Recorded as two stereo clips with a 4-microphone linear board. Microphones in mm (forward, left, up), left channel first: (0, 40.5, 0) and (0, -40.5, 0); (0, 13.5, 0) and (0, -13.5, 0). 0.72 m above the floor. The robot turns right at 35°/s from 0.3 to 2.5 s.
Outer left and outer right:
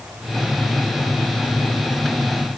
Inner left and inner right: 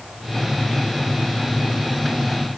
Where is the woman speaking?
I don't hear a woman speaking.